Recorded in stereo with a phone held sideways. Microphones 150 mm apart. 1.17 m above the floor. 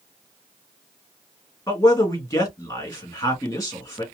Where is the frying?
No frying in this recording.